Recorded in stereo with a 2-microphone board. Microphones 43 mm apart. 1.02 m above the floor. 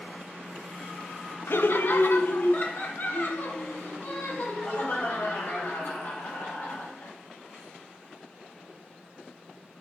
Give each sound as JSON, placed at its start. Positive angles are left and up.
{"t": 1.5, "sound": "laughter", "side_deg": 60, "distance_m": 0.8}